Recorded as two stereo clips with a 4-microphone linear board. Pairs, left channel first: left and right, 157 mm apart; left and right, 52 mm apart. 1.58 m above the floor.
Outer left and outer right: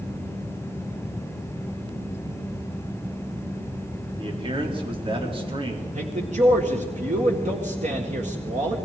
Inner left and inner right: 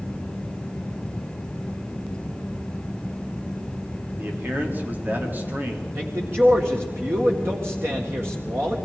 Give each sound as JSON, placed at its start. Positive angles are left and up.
{"t": 4.2, "sound": "a man speaking", "side_deg": -35, "distance_m": 3.5}
{"t": 6.0, "sound": "a man speaking", "side_deg": -50, "distance_m": 1.8}